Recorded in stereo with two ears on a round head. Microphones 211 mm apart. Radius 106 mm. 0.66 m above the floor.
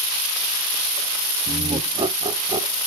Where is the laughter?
20° right (ahead or behind), 0.8 m.